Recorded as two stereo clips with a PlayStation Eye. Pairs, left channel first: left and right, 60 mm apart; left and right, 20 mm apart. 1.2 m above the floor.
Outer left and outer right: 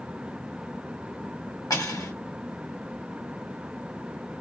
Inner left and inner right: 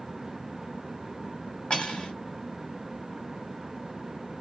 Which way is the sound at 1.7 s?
75° left (ahead or behind).